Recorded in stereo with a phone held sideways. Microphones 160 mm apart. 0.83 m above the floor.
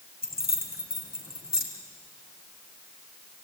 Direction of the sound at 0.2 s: 80° left.